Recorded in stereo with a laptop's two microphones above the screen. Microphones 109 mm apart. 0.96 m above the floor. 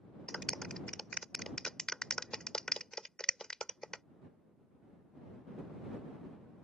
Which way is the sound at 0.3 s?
5° left (ahead or behind).